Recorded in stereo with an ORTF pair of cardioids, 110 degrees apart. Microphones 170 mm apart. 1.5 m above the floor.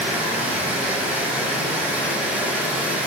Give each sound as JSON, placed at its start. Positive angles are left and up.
{"t": 0.0, "sound": "running water", "azimuth_deg": -5, "distance_m": 0.7}